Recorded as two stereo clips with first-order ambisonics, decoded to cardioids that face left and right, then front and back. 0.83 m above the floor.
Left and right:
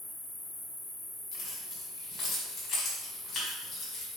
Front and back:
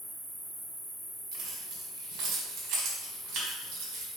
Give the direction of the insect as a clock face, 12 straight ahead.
9 o'clock.